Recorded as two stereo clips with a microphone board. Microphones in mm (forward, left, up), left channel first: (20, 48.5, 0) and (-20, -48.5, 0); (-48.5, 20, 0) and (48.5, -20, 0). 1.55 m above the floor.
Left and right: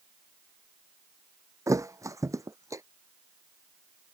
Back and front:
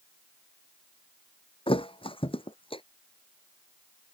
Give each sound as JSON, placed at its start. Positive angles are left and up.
{"t": 1.7, "sound": "a thud", "azimuth_deg": -170}